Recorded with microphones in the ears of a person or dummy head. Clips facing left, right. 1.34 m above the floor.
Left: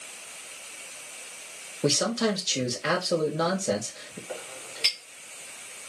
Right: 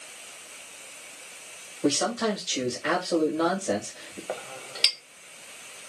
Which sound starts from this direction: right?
A clink, at 4.3 s.